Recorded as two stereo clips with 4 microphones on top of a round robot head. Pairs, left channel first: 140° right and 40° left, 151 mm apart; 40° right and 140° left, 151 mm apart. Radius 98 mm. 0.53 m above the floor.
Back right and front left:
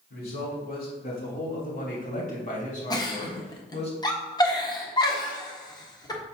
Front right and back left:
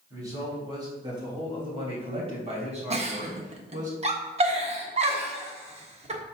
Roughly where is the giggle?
Behind.